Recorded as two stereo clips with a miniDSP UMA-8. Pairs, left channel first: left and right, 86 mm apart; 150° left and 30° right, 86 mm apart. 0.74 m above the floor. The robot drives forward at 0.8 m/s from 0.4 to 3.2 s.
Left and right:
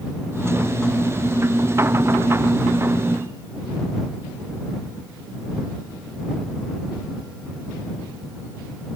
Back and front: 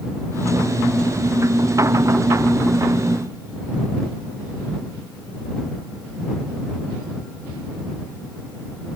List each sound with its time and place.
Only background noise.